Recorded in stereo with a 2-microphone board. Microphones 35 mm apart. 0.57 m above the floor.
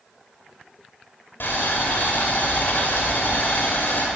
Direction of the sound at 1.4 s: 70° left (ahead or behind).